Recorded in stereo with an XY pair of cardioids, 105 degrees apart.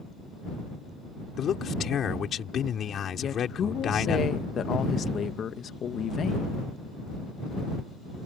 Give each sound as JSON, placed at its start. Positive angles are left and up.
{"t": 1.4, "sound": "a man speaking", "azimuth_deg": 55}
{"t": 3.2, "sound": "a woman speaking", "azimuth_deg": 55}